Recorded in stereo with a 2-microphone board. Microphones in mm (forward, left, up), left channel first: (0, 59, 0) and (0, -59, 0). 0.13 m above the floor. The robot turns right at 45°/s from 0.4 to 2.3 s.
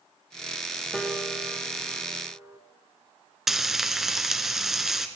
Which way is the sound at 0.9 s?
5° left (ahead or behind).